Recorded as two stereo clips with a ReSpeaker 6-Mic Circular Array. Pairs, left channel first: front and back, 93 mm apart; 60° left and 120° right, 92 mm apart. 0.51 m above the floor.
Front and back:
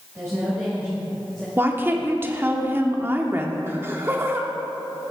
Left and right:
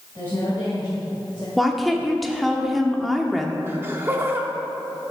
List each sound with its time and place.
0.1 s a woman speaking: 125° left, 2.5 m; by 1.5 s 85° left, 1.8 m
1.6 s a woman speaking: 150° left, 1.0 m
3.7 s laughter: 155° right, 0.7 m